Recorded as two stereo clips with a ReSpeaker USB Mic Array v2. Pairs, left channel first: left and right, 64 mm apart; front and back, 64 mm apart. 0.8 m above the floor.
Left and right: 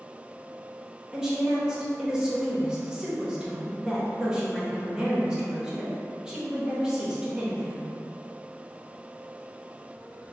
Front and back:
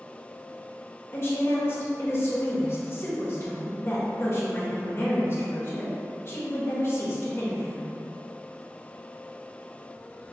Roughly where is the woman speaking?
Ahead.